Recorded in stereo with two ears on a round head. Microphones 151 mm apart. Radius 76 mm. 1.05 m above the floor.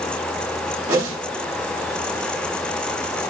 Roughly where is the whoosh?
Right.